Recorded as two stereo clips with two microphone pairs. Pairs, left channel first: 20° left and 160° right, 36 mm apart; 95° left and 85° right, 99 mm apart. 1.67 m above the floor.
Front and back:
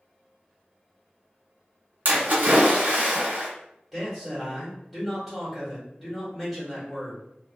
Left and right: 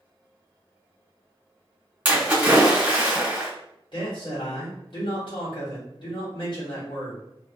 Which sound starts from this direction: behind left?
A man speaking, at 3.9 s.